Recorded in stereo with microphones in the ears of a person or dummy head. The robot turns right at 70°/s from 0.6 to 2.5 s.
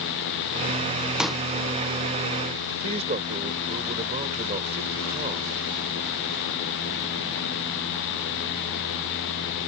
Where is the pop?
5° right (ahead or behind); by 1.4 s 5° left (ahead or behind).